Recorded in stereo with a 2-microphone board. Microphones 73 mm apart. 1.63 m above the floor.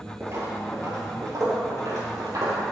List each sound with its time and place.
0.2 s footsteps: 40° right (ahead or behind), 2 m; by 2.6 s 55° right (ahead or behind), 3 m